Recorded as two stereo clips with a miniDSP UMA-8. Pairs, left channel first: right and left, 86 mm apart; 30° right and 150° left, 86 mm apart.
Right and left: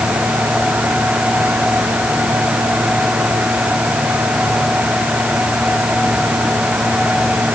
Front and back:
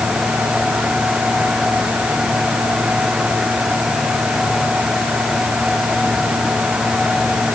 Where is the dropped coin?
I don't hear a dropped coin.